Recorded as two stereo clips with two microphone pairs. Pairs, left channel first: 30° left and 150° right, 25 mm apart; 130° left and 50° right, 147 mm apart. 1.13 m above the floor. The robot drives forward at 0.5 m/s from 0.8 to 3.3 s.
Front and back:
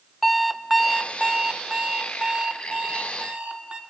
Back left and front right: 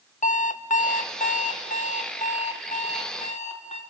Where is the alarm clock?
125° left, 0.5 m; by 3.8 s 165° left, 1.6 m.